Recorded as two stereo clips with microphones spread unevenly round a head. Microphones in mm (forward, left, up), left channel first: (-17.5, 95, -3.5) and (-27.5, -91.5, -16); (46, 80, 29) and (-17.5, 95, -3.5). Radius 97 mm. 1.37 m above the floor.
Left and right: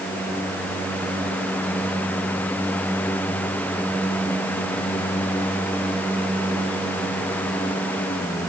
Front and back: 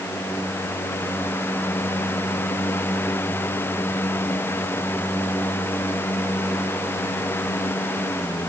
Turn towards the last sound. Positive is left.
No sound to turn to.